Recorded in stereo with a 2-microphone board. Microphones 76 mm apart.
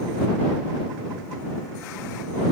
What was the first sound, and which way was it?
Only background noise.